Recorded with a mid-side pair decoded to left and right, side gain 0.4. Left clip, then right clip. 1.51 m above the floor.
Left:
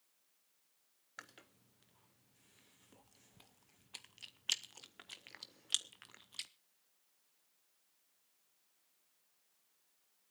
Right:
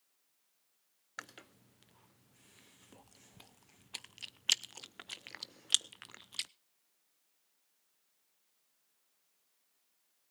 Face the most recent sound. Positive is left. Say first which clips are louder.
# right 6 dB
turn(degrees=-50)